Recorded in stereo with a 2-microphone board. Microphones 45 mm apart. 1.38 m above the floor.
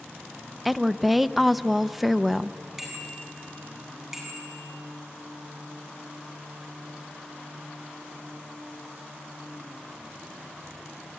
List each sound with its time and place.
0.7 s a woman speaking: 5° right (ahead or behind), 0.6 m
2.8 s a bicycle bell: 10° right (ahead or behind), 8.5 m